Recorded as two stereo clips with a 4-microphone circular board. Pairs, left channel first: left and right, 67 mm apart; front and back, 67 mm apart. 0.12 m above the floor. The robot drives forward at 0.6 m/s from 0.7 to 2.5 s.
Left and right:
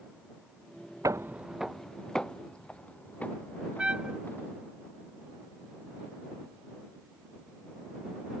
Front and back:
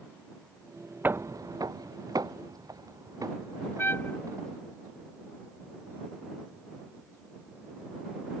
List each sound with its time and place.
1.0 s footsteps: 120° right; by 4.6 s 150° left
3.8 s a trumpet: 25° right